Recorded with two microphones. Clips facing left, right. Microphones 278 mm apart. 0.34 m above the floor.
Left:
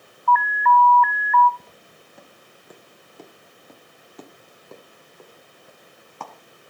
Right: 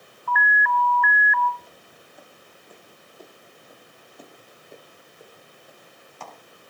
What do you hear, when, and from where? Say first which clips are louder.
0.3 s an alarm: left 7 dB; 10° right (ahead or behind), 1.1 m
1.6 s footsteps: even; 65° left (ahead or behind), 3 m; by 6.3 s 60° left (ahead or behind), 3.5 m